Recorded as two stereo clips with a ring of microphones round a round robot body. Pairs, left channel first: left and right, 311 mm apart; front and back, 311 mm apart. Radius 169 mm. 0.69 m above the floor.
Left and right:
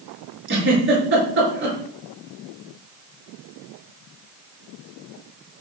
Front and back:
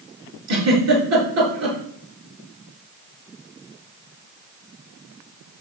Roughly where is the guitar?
No guitar in this recording.